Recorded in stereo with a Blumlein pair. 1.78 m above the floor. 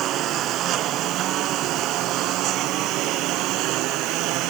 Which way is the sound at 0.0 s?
35° right.